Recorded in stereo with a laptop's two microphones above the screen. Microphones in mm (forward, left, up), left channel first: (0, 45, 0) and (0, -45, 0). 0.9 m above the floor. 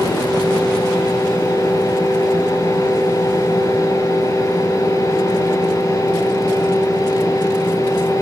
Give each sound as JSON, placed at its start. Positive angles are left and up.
{"t": 0.0, "sound": "a fan", "side_deg": 40, "distance_m": 9.0}